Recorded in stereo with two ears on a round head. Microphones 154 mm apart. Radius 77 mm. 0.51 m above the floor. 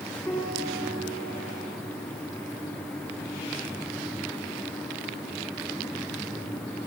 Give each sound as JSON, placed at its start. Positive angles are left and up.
{"t": 0.3, "sound": "a piano", "side_deg": 15, "distance_m": 1.7}